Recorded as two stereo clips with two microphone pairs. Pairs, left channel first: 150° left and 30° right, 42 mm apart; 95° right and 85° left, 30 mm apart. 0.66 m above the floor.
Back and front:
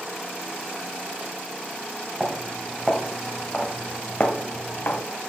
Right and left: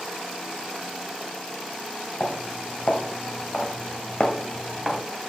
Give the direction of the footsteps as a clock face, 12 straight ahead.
3 o'clock.